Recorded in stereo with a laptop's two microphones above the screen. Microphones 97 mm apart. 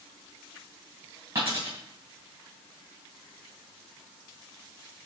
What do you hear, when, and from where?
1.4 s a dropped coin: 35° right (ahead or behind), 4.5 m